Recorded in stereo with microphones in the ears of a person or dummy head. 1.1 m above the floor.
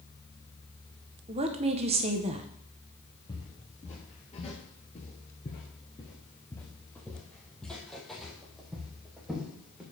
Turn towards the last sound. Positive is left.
turn(degrees=-5)  # may be behind; listen again after turning